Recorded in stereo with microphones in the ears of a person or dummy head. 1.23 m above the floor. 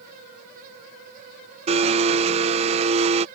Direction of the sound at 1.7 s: 35° right (ahead or behind).